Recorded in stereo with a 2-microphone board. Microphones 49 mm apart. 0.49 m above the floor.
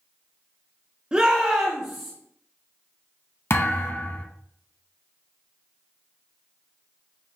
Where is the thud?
55° left (ahead or behind), 0.5 m.